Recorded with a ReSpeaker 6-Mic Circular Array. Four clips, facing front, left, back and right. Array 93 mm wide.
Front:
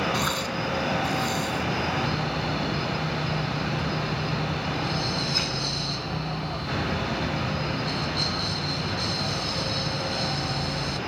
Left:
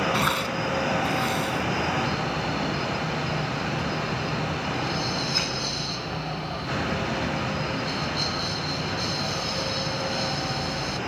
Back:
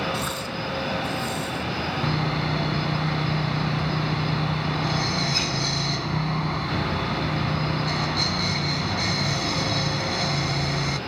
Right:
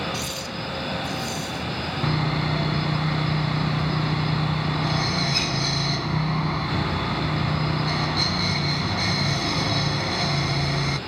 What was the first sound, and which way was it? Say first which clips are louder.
Tearing paper: left 6 dB, front 2 dB; 80° left.